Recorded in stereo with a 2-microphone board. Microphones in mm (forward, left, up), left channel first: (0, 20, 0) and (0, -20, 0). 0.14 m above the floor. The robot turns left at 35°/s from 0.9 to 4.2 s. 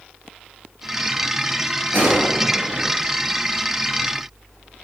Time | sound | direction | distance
1.9 | a gunshot | 80° right | 2 m